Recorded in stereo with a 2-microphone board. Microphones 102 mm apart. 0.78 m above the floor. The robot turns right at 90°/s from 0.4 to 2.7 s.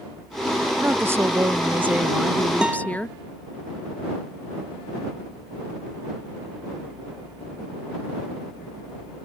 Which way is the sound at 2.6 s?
10° right (ahead or behind).